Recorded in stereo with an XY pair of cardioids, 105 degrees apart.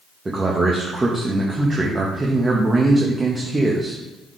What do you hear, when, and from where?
0.2 s a man speaking: 25° right, 1.2 m